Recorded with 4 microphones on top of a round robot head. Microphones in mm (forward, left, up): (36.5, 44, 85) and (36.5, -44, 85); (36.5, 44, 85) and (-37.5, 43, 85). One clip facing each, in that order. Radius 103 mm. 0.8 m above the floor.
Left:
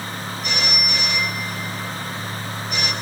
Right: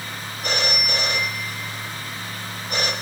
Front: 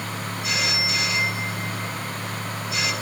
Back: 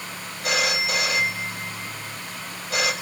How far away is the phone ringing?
About 4.5 m.